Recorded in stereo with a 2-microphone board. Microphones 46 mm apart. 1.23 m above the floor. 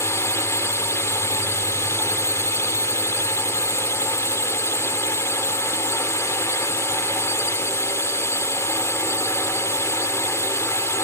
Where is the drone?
75° left (ahead or behind).